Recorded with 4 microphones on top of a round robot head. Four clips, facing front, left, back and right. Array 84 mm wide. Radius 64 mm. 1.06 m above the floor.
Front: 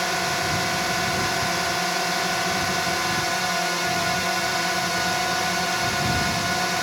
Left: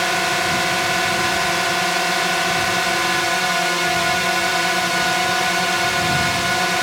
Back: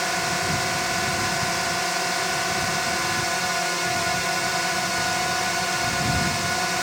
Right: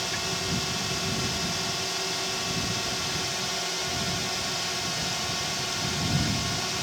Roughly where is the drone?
Left.